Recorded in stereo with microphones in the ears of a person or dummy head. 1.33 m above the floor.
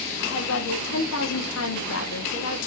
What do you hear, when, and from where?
0.2 s a woman speaking: 80° left, 1.0 m